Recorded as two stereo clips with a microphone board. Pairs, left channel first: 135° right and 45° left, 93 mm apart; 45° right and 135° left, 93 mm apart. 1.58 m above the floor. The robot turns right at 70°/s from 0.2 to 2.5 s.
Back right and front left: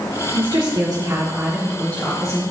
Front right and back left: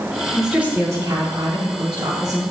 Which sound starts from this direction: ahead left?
A woman speaking, at 0.3 s.